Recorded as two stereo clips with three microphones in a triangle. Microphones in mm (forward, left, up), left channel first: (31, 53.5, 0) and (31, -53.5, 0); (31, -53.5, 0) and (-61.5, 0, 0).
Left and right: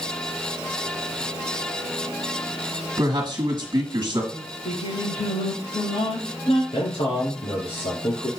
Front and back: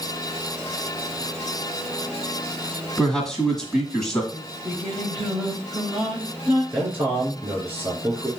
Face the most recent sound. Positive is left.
turn(degrees=80)